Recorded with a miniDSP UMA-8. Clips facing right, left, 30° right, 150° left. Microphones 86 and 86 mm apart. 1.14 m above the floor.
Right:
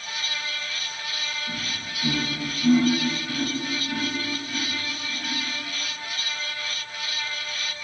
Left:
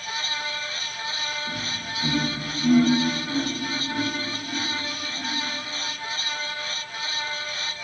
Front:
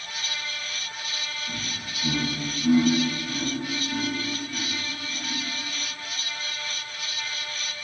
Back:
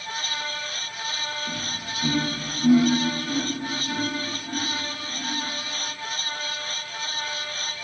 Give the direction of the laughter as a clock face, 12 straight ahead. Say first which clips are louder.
Left 2 dB, back 3 dB; 7 o'clock.